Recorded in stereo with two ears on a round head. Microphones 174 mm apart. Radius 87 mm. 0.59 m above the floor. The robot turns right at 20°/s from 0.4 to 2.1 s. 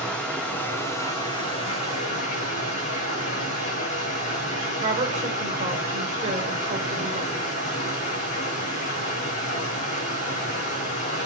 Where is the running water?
5° left, 4 m; by 11.3 s 40° left, 4 m.